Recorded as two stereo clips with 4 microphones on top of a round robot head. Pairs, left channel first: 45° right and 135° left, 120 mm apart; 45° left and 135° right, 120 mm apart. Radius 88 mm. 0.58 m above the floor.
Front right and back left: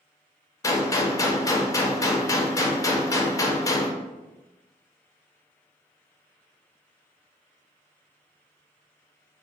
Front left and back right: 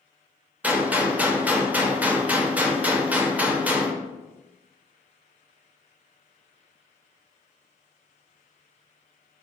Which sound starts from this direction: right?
A gunshot, at 0.6 s.